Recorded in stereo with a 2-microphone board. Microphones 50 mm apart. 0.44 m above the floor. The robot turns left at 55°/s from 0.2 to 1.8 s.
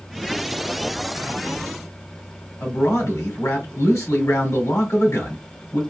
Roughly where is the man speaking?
Left.